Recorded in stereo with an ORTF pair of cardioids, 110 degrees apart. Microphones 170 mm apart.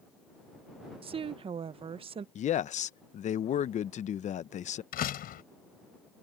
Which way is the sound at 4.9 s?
60° left.